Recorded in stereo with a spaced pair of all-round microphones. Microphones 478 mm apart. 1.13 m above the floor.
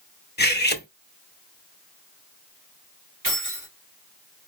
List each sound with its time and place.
0.4 s cutlery clinking: 20° left (ahead or behind), 0.8 m
3.2 s keys jangling: 40° right (ahead or behind), 2.5 m